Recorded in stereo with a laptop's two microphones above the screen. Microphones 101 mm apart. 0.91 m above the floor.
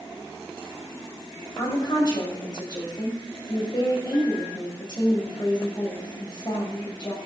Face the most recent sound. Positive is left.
turn(degrees=45)  # may be behind; listen again after turning